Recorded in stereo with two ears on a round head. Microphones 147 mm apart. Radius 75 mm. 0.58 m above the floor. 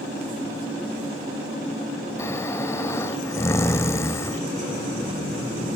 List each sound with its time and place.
2.2 s snoring: 15° left (ahead or behind), 1.1 m